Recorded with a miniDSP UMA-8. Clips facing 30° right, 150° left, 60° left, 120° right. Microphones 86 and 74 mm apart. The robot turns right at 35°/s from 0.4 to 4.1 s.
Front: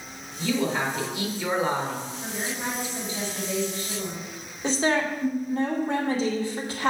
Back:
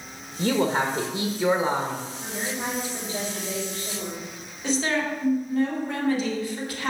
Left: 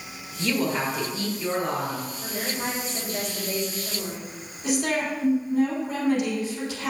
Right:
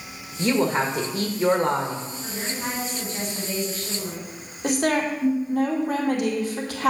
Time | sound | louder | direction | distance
0.4 | a woman speaking | back 3 dB, right 4 dB | straight behind | 1.4 m
2.2 | a woman speaking | back 1 dB, left 2 dB | 75° left | 4.5 m
4.6 | a woman speaking | front 1 dB, right 3 dB | 95° right | 2.5 m